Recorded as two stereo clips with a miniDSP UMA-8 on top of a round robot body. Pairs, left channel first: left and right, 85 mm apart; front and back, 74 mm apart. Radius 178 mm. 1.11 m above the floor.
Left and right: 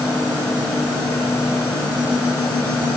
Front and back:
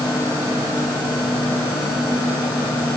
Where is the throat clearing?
I don't hear throat clearing.